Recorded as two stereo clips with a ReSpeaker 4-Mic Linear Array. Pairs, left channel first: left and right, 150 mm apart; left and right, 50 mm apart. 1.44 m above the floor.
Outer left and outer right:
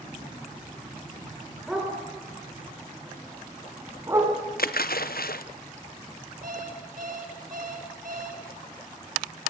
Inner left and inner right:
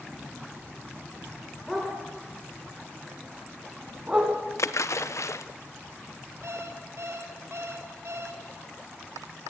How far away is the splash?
About 0.9 m.